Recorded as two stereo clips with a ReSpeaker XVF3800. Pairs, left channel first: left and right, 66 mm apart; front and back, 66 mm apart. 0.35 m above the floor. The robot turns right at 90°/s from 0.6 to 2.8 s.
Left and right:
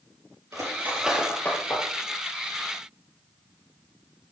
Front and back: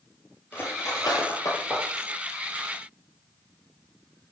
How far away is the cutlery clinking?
About 4 m.